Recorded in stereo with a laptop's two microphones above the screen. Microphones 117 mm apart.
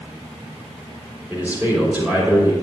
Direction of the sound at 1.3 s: 15° right (ahead or behind).